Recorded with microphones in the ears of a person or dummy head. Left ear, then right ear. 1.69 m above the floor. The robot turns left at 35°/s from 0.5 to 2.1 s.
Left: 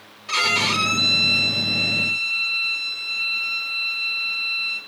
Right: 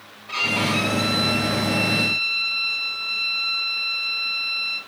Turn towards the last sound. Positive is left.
turn(degrees=25)